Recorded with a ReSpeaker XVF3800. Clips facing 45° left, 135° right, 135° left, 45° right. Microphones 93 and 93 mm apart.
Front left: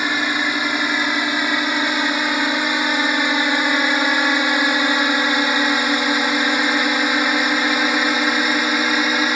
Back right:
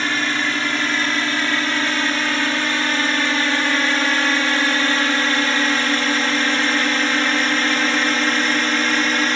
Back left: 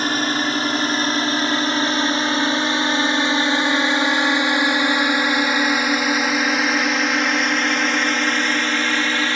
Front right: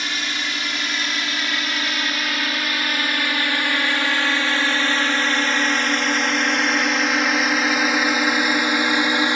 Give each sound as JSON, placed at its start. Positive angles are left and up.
{"t": 0.0, "sound": "a drone", "azimuth_deg": 115}